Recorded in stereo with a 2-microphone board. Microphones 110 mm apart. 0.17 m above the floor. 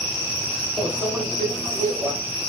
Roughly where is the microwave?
Right.